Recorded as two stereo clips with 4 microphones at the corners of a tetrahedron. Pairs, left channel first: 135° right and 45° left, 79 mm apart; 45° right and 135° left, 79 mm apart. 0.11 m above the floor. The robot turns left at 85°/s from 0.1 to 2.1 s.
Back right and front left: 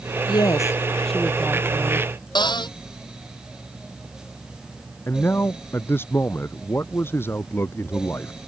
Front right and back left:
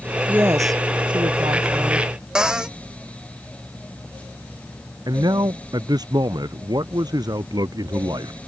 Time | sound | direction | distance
0.3 | a woman speaking | 150° right | ?
2.4 | a cupboard door | 145° right | ?
5.1 | a man speaking | 165° left | ?